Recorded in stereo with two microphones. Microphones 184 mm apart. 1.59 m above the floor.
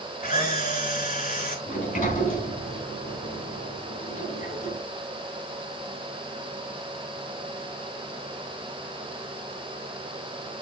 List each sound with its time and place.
0.2 s a camera shutter: 55° left (ahead or behind), 5 m
1.7 s a sliding door: 50° left (ahead or behind), 4 m